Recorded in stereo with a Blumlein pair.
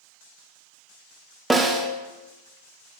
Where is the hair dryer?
I don't hear a hair dryer.